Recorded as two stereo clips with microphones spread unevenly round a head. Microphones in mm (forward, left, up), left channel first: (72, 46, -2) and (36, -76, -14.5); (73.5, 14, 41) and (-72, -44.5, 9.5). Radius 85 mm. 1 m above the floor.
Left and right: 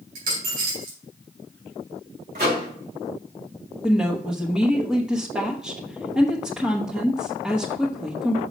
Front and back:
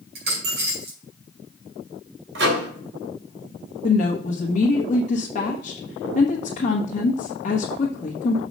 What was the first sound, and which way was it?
A dropped coin, 135° right.